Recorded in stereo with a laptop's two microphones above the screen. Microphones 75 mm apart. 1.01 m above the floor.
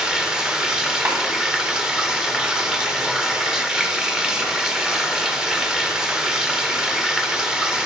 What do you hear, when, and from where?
0.0 s running water: 10° right (ahead or behind), 0.8 m
1.1 s a snare drum: 30° right (ahead or behind), 2 m